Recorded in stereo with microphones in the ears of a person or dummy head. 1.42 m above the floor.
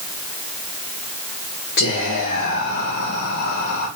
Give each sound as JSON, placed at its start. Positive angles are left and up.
{"t": 1.8, "sound": "whispering", "side_deg": 55, "distance_m": 1.6}